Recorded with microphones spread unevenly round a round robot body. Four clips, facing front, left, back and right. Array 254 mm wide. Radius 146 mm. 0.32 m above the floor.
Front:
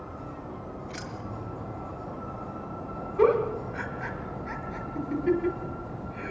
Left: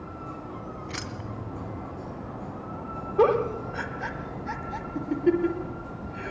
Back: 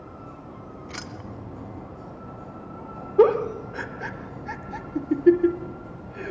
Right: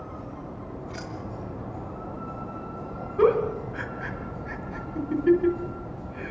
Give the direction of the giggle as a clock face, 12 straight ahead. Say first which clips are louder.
Right 1 dB, back 4 dB; 7 o'clock.